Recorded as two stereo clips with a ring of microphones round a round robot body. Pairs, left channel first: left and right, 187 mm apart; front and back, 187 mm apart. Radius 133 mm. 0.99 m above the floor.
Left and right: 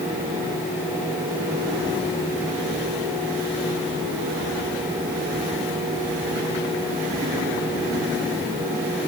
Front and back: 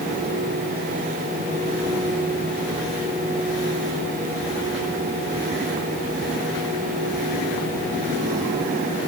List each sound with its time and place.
Only background noise.